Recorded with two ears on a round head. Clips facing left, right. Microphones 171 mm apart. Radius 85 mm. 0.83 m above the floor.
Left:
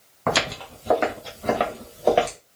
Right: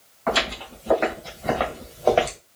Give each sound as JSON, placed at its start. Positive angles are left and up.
{"t": 0.3, "sound": "footsteps", "side_deg": 60, "distance_m": 2.0}